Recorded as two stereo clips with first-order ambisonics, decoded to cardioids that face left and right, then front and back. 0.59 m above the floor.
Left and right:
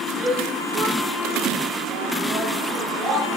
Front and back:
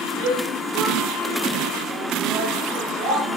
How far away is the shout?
About 9.5 m.